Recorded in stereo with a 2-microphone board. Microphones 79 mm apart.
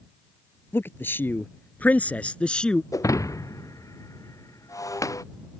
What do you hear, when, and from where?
0.7 s a man speaking: 30° left (ahead or behind); by 2.8 s 10° left (ahead or behind)
2.9 s breaking glass: 45° left (ahead or behind)